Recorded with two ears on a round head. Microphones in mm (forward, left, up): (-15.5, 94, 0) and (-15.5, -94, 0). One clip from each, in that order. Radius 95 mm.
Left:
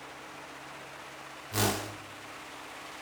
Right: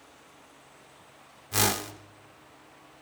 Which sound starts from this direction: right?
A whoosh, at 1.5 s.